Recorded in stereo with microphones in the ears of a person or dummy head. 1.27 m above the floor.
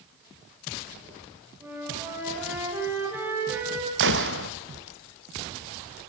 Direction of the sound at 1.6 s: 10° right (ahead or behind).